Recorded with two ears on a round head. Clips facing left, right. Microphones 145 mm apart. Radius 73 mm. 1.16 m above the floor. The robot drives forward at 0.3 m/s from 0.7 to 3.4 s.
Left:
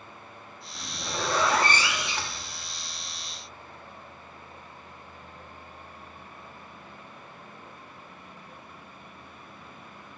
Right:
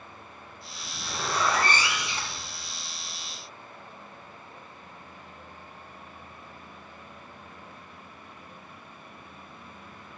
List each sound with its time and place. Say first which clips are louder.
0.8 s a zipper: left 3 dB; 50° left (ahead or behind), 1.1 m; by 2.5 s 65° left (ahead or behind), 0.9 m